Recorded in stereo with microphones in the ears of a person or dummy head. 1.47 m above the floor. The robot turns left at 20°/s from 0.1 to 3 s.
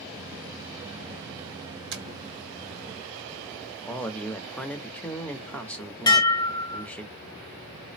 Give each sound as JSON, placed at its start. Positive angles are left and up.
{"t": 1.9, "sound": "tapping", "side_deg": -60, "distance_m": 0.8}
{"t": 3.9, "sound": "a man speaking", "side_deg": 5, "distance_m": 0.7}
{"t": 6.1, "sound": "dishes clattering", "side_deg": 20, "distance_m": 0.9}